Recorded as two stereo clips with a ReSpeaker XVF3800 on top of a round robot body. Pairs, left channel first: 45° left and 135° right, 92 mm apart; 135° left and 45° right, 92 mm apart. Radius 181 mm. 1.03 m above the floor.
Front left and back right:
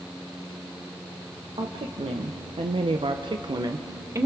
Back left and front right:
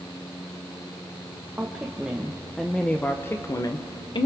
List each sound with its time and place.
1.6 s a woman speaking: 120° right, 1.4 m; by 4.3 s 165° left, 1.0 m